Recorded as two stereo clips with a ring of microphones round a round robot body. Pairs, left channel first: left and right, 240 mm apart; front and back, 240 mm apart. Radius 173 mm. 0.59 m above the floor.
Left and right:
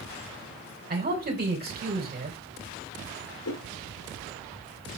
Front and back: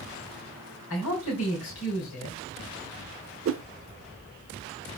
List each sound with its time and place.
0.9 s a man speaking: 40° right, 2.5 m
3.5 s a whoosh: 140° left, 0.5 m